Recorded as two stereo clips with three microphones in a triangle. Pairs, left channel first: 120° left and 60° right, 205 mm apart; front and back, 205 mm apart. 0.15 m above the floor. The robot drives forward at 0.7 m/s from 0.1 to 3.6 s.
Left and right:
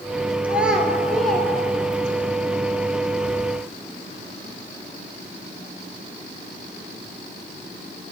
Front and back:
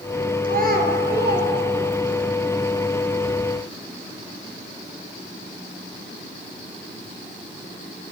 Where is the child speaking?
140° right, 2 m; by 2.3 s 155° right, 3 m.